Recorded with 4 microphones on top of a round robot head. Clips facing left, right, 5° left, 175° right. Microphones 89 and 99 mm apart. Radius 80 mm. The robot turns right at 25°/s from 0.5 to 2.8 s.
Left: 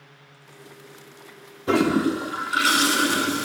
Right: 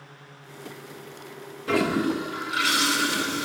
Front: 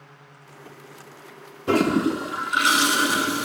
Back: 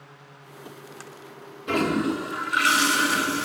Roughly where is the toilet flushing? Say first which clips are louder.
Left 3 dB, front 4 dB; ahead left.